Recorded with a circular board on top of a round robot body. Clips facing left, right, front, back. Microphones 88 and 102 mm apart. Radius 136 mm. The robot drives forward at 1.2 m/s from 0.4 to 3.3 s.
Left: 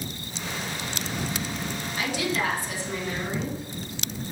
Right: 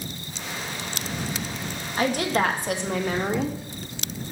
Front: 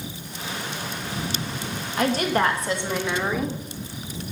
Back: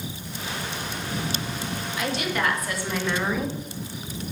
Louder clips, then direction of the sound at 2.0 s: Right 5 dB, front 6 dB; 45° right.